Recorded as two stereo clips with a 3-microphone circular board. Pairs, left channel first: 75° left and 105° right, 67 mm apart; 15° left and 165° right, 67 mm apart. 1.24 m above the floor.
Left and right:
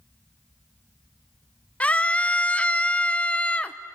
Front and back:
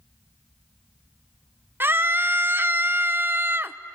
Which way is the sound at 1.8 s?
145° left.